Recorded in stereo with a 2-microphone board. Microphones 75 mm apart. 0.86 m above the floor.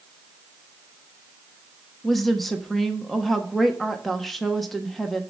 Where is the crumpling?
I don't hear crumpling.